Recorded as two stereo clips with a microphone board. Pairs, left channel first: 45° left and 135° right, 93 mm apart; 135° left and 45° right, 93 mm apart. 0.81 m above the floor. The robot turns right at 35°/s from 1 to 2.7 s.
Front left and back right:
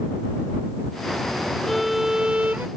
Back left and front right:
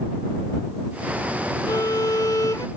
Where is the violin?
135° left; by 2.7 s 170° left.